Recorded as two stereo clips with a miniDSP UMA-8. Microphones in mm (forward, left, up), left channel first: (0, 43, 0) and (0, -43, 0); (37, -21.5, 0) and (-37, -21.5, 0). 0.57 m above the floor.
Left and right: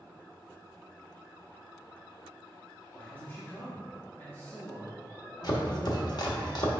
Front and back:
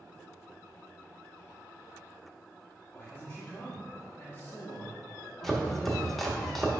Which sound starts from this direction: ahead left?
A man speaking, at 2.9 s.